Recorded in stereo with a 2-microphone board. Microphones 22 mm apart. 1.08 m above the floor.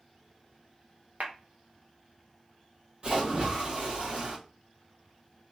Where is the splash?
50° right (ahead or behind), 1.6 m.